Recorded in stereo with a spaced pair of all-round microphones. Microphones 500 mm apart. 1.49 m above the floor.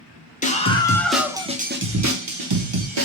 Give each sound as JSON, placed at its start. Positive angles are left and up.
{"t": 0.4, "sound": "a scream", "side_deg": 15, "distance_m": 1.1}